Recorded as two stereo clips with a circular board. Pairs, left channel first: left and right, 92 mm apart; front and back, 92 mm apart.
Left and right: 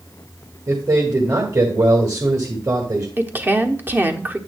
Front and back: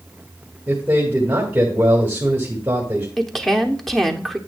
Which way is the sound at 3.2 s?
80° right.